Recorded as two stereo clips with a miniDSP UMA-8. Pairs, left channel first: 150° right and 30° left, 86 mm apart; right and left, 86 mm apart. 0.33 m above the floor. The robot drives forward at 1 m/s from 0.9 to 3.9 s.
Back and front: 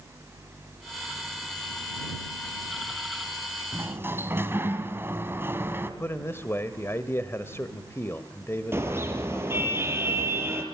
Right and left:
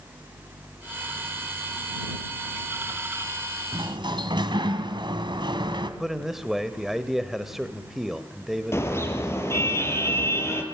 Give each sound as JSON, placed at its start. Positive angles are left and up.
{"t": 3.7, "sound": "a sliding door", "azimuth_deg": 85, "distance_m": 2.0}
{"t": 6.0, "sound": "a man speaking", "azimuth_deg": 175, "distance_m": 1.3}
{"t": 8.7, "sound": "a car horn", "azimuth_deg": -30, "distance_m": 4.5}